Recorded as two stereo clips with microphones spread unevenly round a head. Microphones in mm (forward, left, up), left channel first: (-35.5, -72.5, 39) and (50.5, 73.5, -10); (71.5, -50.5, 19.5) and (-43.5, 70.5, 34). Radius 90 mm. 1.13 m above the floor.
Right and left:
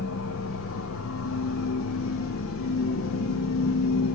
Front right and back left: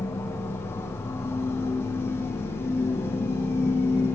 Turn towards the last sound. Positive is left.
turn(degrees=-120)